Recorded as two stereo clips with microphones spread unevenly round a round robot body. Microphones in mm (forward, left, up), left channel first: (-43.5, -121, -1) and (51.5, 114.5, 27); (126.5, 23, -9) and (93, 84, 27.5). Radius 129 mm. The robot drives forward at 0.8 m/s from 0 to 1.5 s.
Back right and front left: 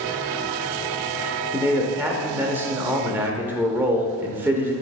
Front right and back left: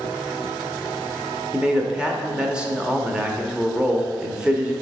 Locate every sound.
1.5 s a man speaking: 20° right, 0.8 m